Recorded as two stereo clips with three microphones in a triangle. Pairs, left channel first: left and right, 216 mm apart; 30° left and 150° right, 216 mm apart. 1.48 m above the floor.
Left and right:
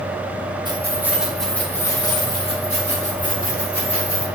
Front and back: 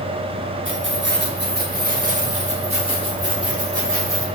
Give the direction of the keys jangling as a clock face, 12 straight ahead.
5 o'clock.